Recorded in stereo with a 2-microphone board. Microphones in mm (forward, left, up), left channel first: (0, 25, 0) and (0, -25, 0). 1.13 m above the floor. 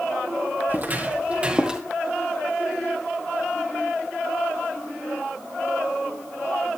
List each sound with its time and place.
0.7 s footsteps: 35° right (ahead or behind), 1.8 m; by 1.8 s 10° right (ahead or behind), 1.6 m